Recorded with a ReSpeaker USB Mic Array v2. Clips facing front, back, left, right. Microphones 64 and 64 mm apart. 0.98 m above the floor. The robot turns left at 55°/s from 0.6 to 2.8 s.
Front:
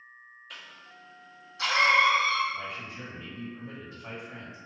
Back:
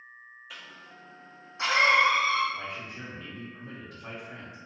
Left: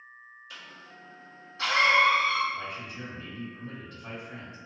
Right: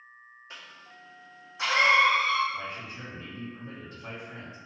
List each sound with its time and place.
0.5 s a cough: 95° right, 0.6 m; by 2.4 s 165° left, 0.6 m
2.5 s a man speaking: 145° right, 1.3 m; by 4.6 s 160° right, 1.3 m